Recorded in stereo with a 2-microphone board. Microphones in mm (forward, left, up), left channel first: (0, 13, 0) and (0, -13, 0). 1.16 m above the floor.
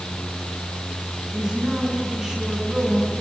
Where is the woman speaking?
20° right (ahead or behind), 9 m.